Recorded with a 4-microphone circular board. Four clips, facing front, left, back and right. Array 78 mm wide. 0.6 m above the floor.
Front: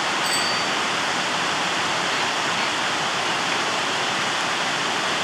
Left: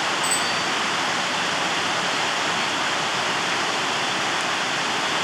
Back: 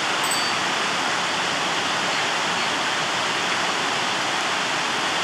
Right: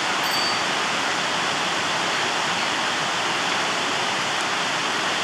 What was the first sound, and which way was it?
A bicycle bell, 5° left.